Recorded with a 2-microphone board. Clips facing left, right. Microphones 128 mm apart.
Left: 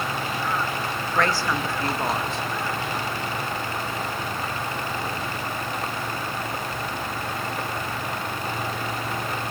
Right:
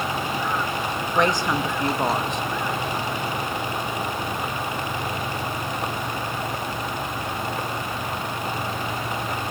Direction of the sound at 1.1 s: 20° right (ahead or behind).